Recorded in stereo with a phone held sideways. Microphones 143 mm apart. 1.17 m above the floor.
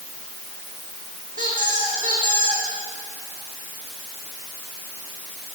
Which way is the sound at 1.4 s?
70° right (ahead or behind).